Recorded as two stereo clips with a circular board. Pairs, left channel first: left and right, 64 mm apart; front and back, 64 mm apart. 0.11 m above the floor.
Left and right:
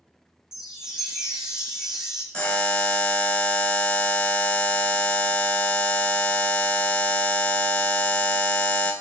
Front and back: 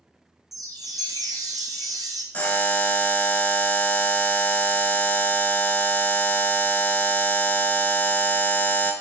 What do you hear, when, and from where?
0.5 s a chime: 170° right, 0.7 m
2.3 s a buzzer: 35° left, 0.6 m